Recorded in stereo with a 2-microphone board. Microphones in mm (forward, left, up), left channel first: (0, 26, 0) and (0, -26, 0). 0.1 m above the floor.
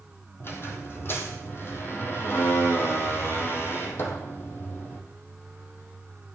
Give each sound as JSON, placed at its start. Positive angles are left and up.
{"t": 0.4, "sound": "a squeak", "side_deg": 45, "distance_m": 1.8}